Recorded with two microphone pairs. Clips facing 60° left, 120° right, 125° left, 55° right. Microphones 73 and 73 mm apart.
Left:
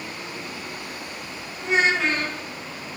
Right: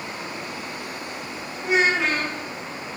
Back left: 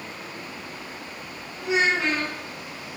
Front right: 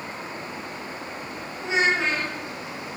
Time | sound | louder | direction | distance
1.6 | a child speaking | even, even | 35° right | 0.6 m